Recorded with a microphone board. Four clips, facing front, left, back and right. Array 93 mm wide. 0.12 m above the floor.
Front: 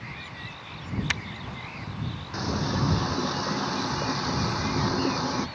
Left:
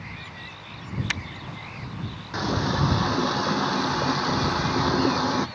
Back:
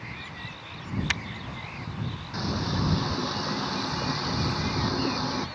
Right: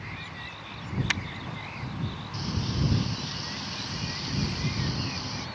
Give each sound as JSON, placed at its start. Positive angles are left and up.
{"t": 2.3, "sound": "a running tap", "azimuth_deg": 85}